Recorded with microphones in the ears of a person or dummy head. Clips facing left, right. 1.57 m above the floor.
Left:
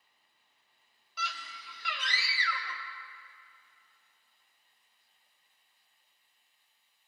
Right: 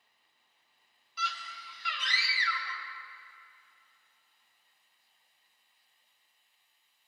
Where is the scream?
45° left (ahead or behind), 1.4 m.